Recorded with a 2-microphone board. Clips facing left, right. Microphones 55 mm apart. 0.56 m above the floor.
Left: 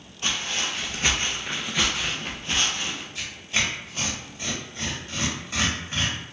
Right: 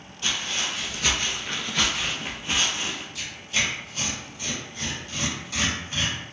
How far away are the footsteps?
About 1.0 m.